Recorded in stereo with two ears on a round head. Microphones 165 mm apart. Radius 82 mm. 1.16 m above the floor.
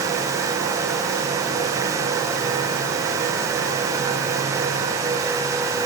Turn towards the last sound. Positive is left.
No sound to turn to.